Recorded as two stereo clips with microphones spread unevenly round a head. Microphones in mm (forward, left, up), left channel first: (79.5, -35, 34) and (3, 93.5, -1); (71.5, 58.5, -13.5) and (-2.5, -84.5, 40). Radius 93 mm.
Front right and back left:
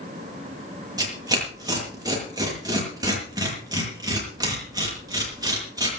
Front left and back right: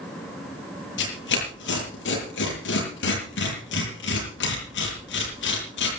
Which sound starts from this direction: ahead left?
Tearing paper, at 1.0 s.